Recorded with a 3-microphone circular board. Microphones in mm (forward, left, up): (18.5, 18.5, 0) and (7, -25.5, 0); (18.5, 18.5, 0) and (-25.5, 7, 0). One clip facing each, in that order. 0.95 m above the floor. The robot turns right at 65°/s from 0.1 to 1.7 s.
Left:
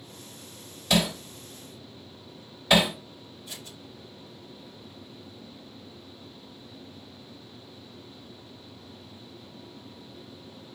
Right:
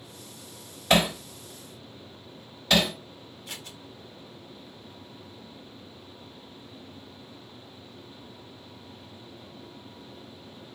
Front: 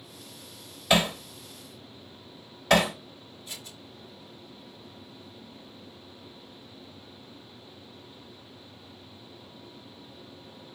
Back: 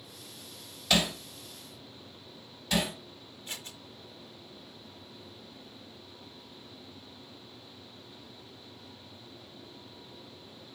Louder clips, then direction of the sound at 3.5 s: Right 3 dB, back 2 dB; 115° right.